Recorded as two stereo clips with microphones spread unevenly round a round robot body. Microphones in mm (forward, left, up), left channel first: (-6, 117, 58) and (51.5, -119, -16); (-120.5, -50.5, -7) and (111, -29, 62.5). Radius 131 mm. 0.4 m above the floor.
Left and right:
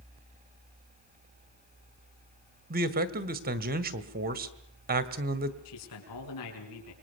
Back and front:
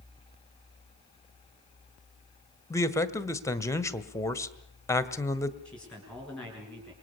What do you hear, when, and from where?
2.7 s a man speaking: 110° right, 1.6 m
5.7 s a man speaking: 105° left, 6.5 m